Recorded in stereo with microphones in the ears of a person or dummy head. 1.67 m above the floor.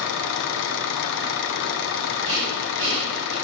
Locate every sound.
0.0 s an engine running: 65° left (ahead or behind), 0.8 m
2.2 s breathing: 30° right (ahead or behind), 5 m